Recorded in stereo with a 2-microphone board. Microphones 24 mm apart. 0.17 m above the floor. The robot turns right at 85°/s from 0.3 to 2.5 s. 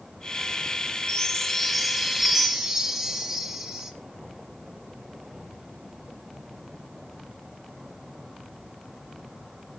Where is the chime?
20° left (ahead or behind), 1.2 m; by 3.9 s 20° right (ahead or behind), 1.2 m.